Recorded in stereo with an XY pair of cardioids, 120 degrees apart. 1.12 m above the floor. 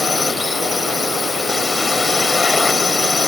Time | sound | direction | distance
0.0 | a drone | 20° left | ?